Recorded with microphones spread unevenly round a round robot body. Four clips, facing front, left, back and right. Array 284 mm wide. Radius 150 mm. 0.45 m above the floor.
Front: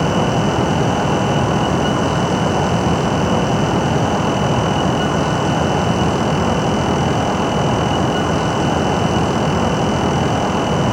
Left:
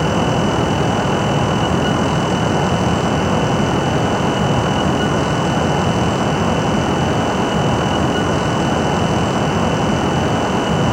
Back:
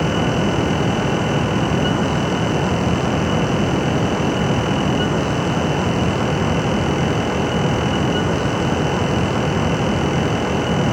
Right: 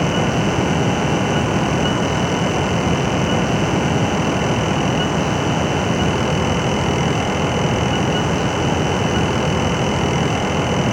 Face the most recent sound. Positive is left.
No sound to turn to.